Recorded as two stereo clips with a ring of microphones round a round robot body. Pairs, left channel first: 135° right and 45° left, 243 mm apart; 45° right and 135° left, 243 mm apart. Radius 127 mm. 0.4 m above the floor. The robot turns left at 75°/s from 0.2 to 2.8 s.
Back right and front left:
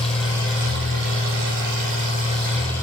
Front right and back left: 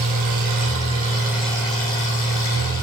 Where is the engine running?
135° left, 4 m; by 2.8 s 60° right, 4 m.